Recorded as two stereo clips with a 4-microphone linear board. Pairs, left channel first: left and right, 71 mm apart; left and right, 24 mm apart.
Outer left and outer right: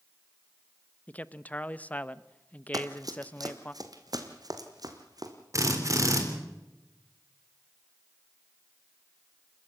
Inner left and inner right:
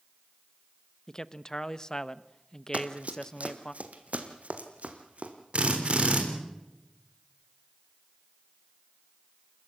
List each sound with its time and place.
1.1 s a man speaking: 20° left (ahead or behind), 0.6 m
2.7 s running footsteps: 60° right (ahead or behind), 1.7 m
5.5 s a drill: 50° right (ahead or behind), 3.5 m